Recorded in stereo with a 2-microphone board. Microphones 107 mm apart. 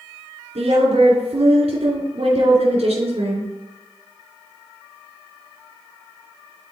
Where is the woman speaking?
80° right, 2.5 m.